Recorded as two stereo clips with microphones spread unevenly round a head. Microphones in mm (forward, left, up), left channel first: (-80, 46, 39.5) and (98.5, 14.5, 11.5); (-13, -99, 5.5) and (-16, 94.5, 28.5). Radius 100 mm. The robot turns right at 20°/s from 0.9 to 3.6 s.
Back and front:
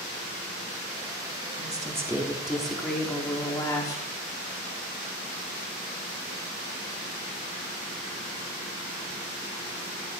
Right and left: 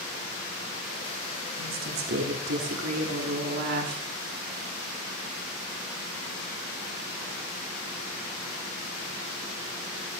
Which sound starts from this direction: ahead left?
A woman speaking, at 1.6 s.